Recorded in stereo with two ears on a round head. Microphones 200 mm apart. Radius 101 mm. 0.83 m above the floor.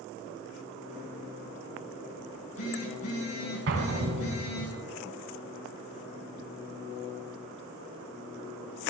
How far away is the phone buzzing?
About 6 m.